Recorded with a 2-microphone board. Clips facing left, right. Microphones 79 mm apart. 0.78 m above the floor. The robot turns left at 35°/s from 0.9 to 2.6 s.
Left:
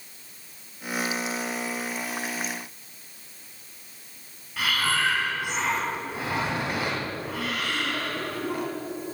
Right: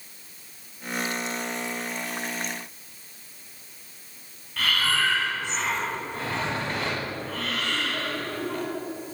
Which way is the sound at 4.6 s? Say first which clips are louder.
Even; 10° left (ahead or behind).